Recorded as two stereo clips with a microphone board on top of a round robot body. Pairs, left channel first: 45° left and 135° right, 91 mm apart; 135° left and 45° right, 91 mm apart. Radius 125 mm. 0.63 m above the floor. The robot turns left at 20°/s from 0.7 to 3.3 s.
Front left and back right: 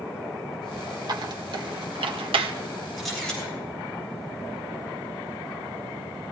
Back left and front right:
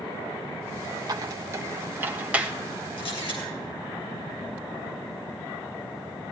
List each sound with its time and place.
1.1 s a squeak: 95° right, 1.4 m; by 2.5 s 125° right, 1.4 m
3.0 s a camera shutter: 135° left, 8.5 m; by 3.4 s 130° left, 8.5 m